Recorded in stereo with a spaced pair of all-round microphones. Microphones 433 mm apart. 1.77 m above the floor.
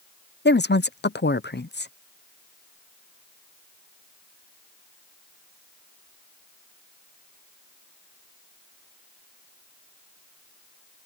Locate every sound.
0.5 s a woman speaking: 25° left (ahead or behind)